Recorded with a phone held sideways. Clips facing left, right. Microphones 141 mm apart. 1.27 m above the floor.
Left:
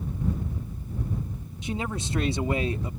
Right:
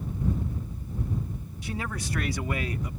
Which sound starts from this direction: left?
A man speaking, at 1.6 s.